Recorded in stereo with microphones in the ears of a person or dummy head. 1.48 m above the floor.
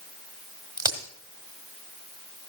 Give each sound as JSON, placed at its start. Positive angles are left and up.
{"t": 0.8, "sound": "a crack", "side_deg": -15, "distance_m": 1.4}